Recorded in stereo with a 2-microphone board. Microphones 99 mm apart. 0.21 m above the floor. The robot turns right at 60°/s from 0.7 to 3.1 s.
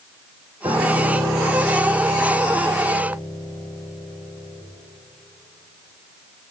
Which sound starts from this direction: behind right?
A piano, at 0.6 s.